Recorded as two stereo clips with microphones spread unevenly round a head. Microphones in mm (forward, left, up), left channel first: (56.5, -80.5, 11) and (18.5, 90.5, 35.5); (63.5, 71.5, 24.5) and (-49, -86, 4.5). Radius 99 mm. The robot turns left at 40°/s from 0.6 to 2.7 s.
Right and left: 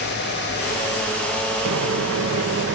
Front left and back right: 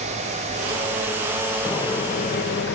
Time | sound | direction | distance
1.6 | a microwave | 130° left | ?